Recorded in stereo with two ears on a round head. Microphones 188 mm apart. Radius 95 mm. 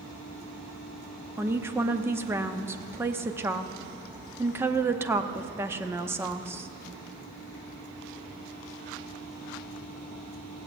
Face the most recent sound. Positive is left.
turn(degrees=-10)  # may be behind; listen again after turning